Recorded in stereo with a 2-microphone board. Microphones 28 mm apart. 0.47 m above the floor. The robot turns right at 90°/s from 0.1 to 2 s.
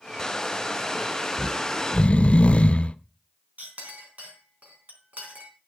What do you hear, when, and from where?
1.4 s snoring: 20° left, 0.5 m; by 3.0 s 75° left, 0.5 m
3.6 s a clink: 70° right (ahead or behind), 3.5 m